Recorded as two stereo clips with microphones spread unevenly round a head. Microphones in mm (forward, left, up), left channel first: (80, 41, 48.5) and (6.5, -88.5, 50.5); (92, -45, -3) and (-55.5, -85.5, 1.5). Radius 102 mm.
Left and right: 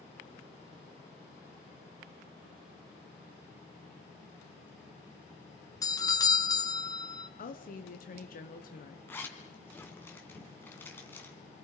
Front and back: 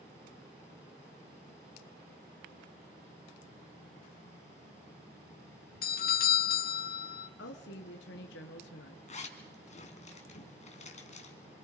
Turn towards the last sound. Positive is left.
turn(degrees=-15)